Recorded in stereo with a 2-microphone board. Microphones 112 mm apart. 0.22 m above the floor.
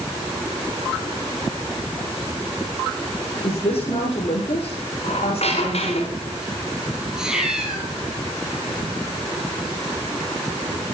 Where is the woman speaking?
55° left (ahead or behind), 8 m.